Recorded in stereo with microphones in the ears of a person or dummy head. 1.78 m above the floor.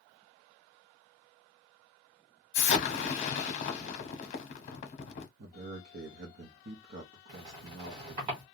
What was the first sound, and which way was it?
An explosion, 45° left (ahead or behind).